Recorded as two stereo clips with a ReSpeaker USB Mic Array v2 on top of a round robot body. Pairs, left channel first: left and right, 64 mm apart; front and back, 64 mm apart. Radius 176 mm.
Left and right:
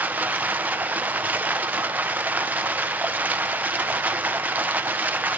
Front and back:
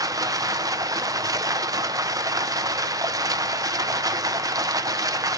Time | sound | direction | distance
0.0 | running water | 155° right | 0.8 m